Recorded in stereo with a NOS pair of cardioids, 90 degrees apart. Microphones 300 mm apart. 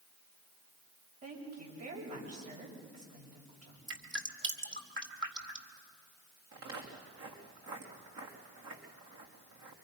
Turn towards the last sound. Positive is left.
turn(degrees=-60)